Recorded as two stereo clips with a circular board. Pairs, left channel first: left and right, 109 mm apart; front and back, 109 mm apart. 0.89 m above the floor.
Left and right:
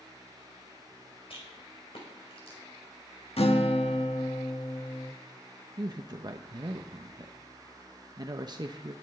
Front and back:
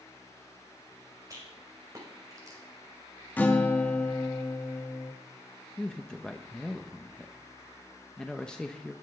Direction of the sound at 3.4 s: 75° left.